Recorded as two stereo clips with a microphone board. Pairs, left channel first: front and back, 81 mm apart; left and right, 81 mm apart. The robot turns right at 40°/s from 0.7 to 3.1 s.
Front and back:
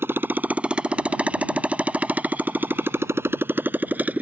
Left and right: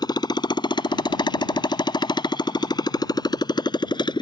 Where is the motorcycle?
120° left; by 4.2 s 110° left.